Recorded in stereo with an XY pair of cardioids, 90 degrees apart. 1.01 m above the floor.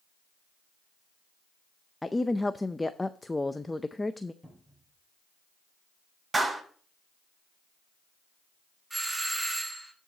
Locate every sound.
2.0 s a woman speaking: 15° left, 0.5 m
4.4 s a cupboard door: straight ahead, 7 m
6.3 s a clap: 25° right, 6.5 m
8.9 s a doorbell: 15° right, 2 m